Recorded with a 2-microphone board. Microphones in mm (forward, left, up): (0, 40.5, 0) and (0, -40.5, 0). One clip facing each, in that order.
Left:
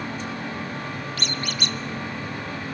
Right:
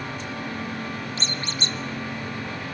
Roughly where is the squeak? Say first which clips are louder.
Left 1 dB; right.